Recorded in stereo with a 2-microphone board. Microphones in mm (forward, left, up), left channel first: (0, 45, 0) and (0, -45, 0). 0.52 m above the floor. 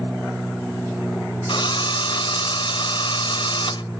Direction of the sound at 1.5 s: 65° left (ahead or behind).